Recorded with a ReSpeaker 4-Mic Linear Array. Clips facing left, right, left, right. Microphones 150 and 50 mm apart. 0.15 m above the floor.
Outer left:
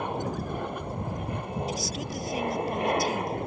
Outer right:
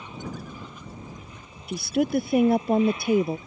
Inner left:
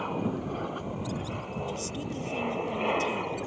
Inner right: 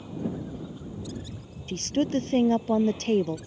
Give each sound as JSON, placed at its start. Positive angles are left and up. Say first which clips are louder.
{"t": 0.0, "sound": "an aircraft", "louder": "outer left 6 dB, inner left 3 dB", "side_deg": 60}
{"t": 1.7, "sound": "a woman speaking", "louder": "outer right 9 dB, inner right 8 dB", "side_deg": -60}